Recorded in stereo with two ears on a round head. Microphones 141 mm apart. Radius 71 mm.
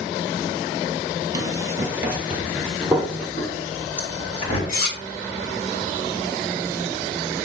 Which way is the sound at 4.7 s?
60° left (ahead or behind).